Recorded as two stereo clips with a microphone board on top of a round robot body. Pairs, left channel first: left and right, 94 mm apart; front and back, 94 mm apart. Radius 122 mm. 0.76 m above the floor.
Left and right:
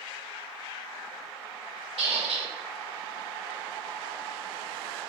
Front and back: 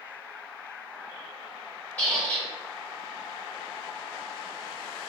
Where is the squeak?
75° right, 1.7 m.